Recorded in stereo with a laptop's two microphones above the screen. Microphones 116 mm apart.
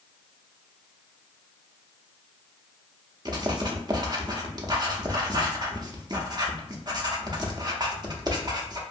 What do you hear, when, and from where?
3.2 s writing: 40° right (ahead or behind), 0.7 m